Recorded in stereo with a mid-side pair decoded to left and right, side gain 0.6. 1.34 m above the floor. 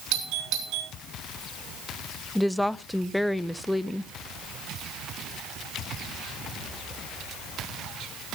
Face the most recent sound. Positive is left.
turn(degrees=5)